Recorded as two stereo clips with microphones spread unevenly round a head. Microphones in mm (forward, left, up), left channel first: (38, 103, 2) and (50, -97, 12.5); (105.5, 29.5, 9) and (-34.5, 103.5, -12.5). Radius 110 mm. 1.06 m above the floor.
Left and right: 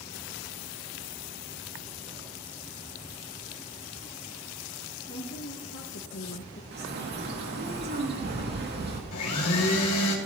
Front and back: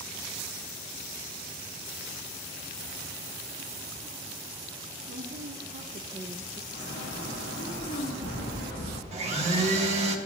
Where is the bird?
55° right, 2 m.